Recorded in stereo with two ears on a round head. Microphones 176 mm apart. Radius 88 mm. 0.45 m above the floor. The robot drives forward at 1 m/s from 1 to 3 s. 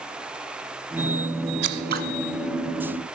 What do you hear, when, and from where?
1.6 s scissors: 65° right (ahead or behind), 1.3 m; by 2.0 s 50° right (ahead or behind), 1.6 m